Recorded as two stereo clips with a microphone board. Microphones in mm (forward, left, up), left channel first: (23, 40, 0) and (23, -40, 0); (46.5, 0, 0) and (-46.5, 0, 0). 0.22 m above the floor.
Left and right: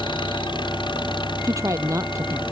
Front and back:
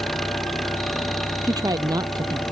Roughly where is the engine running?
Left.